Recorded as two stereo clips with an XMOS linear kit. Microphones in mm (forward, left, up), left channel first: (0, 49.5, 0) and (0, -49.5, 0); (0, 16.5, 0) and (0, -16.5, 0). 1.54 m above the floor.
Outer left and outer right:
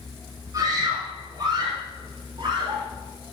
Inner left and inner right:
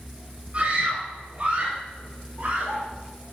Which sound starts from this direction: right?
A scream, at 0.5 s.